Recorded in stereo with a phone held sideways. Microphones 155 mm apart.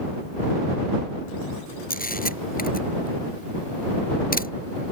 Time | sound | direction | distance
1.9 | a camera shutter | 80° left | ?